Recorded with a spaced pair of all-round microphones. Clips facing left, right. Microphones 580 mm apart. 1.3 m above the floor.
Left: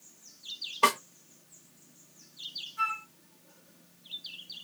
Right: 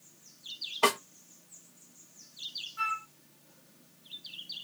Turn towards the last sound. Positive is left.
turn(degrees=-5)  # may be behind; listen again after turning